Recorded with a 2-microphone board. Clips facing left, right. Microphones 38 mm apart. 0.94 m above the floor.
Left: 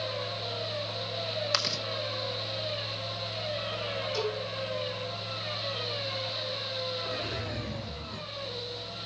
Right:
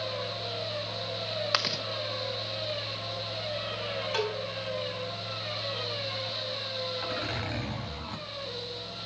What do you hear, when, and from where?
1.5 s chewing: 15° right (ahead or behind), 0.8 m
4.1 s a cowbell: 70° right (ahead or behind), 3.5 m
7.0 s a zipper: 70° right (ahead or behind), 7 m